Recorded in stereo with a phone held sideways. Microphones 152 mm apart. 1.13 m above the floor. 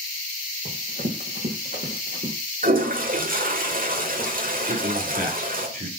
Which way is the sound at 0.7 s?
65° right (ahead or behind).